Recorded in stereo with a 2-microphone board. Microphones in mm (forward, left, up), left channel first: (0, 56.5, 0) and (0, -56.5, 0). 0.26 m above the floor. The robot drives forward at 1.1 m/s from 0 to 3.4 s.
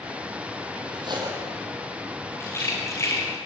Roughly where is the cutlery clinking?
Right.